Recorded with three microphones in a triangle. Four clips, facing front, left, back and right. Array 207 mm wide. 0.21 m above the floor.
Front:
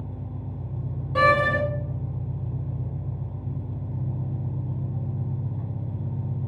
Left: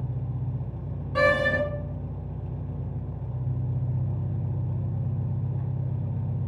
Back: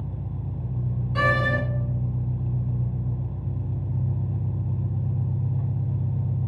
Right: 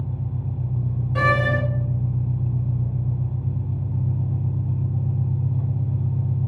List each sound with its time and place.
0.0 s an engine running: 100° right, 0.8 m
1.1 s a door slam: straight ahead, 1.6 m